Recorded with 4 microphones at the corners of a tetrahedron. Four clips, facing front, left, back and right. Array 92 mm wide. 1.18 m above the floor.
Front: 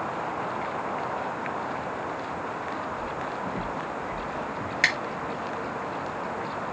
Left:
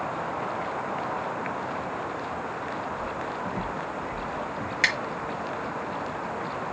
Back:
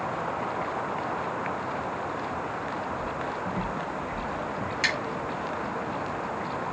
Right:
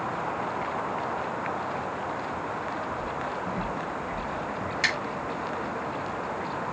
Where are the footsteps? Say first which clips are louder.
Even, even; 60° left, 3.5 m; by 4.7 s 40° left, 4 m.